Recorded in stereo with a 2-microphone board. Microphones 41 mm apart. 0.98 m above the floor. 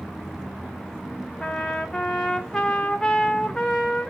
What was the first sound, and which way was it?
A trumpet, 10° left (ahead or behind).